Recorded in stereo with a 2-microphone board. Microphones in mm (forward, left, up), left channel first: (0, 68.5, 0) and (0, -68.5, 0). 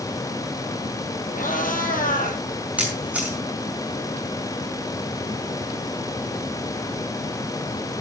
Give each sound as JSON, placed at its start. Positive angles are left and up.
{"t": 1.3, "sound": "a cat meowing", "side_deg": 80, "distance_m": 3.0}
{"t": 2.8, "sound": "a camera shutter", "side_deg": -10, "distance_m": 5.0}